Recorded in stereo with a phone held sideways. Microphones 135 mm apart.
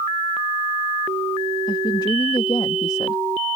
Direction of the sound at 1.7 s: 30° left (ahead or behind).